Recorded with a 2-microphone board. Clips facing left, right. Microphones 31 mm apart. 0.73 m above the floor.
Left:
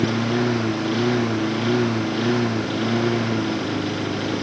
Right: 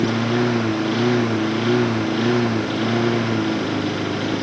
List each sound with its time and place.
0.0 s a lawn mower: 5° right (ahead or behind)